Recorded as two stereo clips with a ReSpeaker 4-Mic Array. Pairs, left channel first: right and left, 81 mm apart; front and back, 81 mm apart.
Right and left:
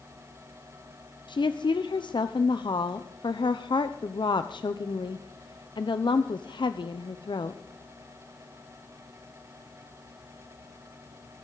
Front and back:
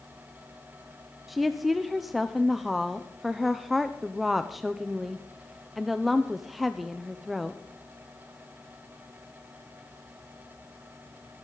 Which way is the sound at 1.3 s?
90° right.